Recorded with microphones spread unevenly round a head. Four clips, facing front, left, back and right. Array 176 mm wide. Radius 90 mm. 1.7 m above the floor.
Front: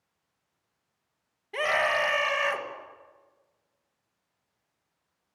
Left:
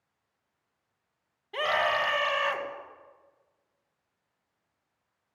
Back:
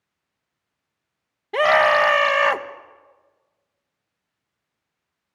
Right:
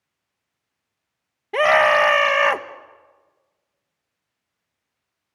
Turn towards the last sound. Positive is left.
turn(degrees=-125)